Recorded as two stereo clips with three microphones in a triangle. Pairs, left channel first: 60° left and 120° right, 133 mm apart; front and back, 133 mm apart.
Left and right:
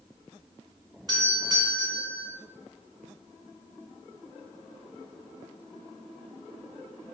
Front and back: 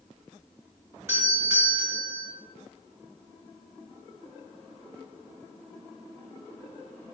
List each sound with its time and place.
1.1 s a doorbell: 135° right, 1.7 m